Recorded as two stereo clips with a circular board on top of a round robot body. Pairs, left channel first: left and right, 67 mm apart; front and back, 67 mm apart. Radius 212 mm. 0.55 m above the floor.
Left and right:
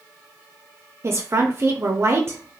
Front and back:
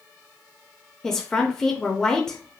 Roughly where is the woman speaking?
Right.